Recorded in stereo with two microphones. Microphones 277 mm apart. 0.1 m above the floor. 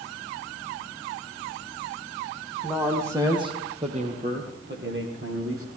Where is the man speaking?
5° right (ahead or behind), 4.5 m; by 5.7 s 55° right (ahead or behind), 4 m.